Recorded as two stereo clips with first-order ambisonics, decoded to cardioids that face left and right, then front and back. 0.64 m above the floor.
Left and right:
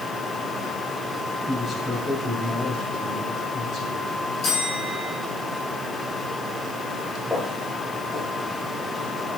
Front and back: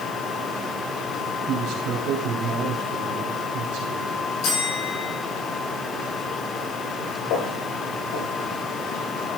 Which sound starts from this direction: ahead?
Footsteps, at 7.3 s.